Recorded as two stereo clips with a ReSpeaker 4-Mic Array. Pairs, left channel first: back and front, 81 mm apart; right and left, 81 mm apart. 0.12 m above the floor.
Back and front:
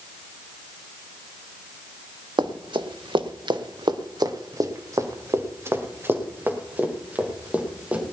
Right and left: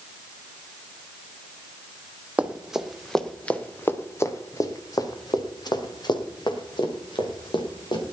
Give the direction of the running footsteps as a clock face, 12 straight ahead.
11 o'clock.